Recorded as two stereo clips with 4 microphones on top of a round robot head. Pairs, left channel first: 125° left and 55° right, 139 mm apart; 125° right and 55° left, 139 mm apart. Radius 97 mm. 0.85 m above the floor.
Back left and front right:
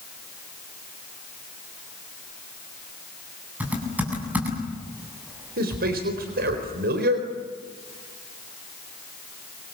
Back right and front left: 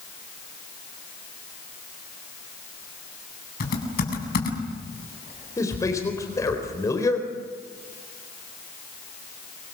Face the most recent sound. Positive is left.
turn(degrees=-55)